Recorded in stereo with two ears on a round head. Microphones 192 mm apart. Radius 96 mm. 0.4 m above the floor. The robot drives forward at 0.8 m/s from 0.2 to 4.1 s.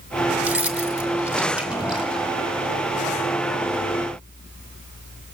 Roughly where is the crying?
I don't hear crying.